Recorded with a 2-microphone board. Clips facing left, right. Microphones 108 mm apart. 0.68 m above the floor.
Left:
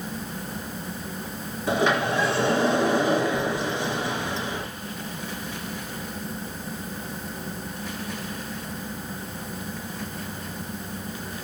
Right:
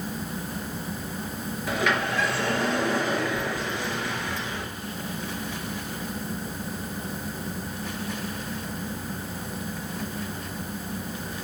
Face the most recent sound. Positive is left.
turn(degrees=25)  # may be behind; listen again after turning